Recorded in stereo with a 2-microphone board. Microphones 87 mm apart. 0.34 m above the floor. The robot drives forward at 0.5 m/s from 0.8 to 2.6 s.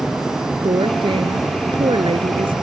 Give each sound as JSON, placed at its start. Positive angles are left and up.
{"t": 0.6, "sound": "a woman speaking", "side_deg": -65}